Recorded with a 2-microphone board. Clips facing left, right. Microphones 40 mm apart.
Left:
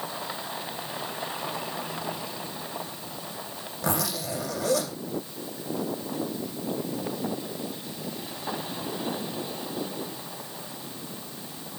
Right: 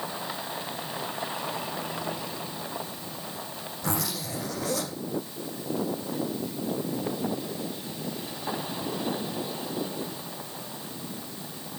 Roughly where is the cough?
I don't hear a cough.